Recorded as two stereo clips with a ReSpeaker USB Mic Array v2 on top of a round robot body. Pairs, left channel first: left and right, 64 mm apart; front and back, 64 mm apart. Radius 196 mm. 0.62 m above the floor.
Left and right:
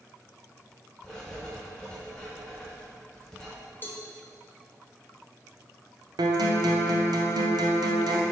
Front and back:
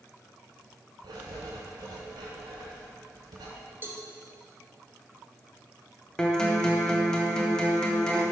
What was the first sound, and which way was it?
Writing, 170° left.